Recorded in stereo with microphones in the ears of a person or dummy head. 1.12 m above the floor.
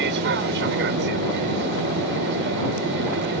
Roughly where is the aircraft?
Right.